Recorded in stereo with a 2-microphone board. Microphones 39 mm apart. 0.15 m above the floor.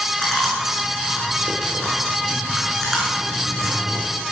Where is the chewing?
5° left (ahead or behind), 7 m.